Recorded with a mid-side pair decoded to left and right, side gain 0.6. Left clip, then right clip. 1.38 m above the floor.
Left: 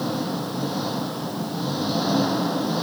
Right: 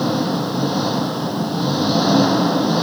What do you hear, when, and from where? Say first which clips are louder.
0.0 s an engine running: right 7 dB; 35° right